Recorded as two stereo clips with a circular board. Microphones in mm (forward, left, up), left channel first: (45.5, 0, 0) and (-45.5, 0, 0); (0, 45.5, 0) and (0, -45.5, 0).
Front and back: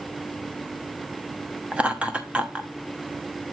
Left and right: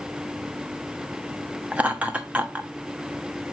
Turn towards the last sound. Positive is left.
turn(degrees=-130)